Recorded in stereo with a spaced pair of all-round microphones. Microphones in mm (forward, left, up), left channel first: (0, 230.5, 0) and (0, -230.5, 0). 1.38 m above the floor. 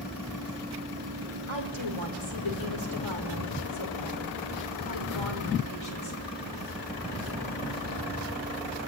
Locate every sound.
1.5 s a woman speaking: 85° left, 5.5 m